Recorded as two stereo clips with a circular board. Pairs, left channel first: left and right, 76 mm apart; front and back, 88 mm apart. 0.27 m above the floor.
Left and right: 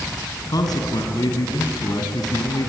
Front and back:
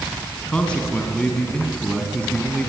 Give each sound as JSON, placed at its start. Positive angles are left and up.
{"t": 0.5, "sound": "a man speaking", "azimuth_deg": 75, "distance_m": 3.0}